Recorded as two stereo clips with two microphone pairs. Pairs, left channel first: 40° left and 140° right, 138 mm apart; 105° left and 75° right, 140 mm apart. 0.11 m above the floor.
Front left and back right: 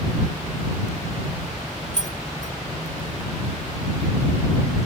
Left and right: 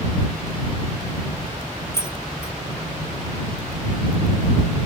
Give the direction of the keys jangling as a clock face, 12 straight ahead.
11 o'clock.